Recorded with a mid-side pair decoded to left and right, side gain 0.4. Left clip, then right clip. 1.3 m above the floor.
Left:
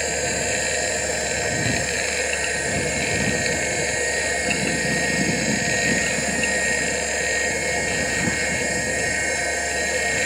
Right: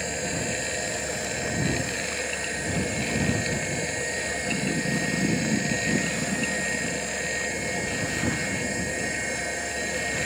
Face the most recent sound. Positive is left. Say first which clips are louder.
# left 6 dB
turn(degrees=45)